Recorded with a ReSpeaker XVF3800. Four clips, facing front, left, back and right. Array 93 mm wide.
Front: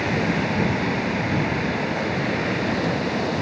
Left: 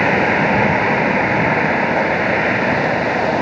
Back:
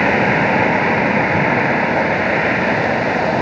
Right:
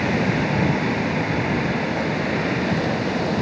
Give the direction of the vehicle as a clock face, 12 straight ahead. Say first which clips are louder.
Left 7 dB, back 8 dB; 7 o'clock.